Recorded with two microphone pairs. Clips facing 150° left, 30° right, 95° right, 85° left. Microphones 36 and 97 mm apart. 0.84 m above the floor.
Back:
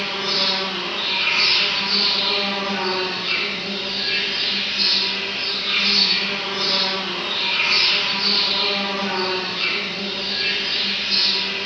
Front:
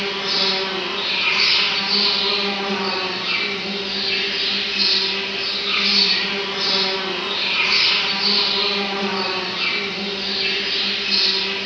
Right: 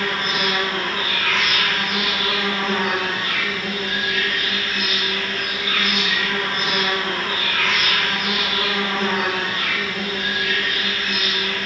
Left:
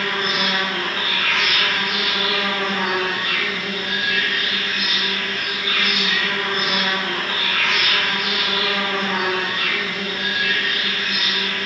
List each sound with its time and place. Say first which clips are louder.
0.0 s an insect: front 1 dB, even; 80° right, 1.7 m